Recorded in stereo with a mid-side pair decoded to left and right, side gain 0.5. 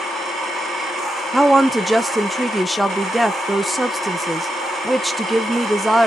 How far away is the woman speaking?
About 0.7 m.